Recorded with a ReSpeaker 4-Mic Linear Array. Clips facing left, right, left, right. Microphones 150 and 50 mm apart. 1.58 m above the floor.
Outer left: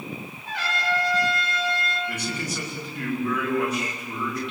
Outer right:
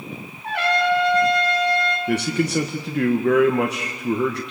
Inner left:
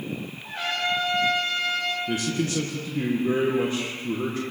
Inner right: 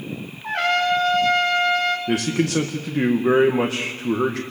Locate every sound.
0.4 s a trumpet: 65° right (ahead or behind), 5 m
2.1 s a man speaking: 75° right (ahead or behind), 1.8 m